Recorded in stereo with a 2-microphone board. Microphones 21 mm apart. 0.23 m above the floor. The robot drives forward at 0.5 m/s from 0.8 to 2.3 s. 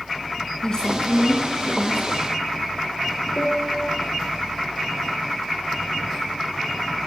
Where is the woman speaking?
35° left (ahead or behind), 2.5 m; by 2.1 s 25° left (ahead or behind), 3 m.